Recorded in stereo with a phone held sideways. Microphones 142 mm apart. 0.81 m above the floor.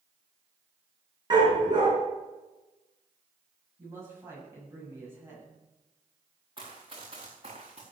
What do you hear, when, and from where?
1.3 s a dog barking: 30° right (ahead or behind), 4.5 m
3.8 s a man speaking: 20° right (ahead or behind), 7 m
6.6 s running footsteps: 40° right (ahead or behind), 3.5 m; by 7.8 s 50° right (ahead or behind), 4 m